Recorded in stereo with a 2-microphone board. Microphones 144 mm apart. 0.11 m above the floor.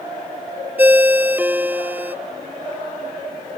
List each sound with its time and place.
0.8 s a ringtone: 10° right (ahead or behind)